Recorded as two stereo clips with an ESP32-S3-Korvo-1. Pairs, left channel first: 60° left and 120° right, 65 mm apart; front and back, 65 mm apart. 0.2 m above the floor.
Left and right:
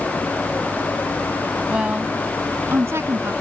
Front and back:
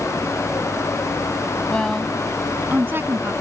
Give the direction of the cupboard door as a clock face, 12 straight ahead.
I don't hear a cupboard door.